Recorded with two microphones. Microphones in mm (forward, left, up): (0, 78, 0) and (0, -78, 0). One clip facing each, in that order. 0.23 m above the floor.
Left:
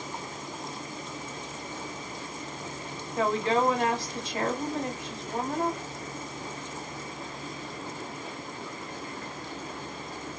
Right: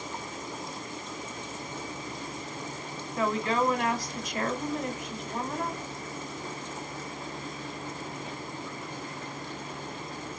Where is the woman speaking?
30° left (ahead or behind), 1.6 m.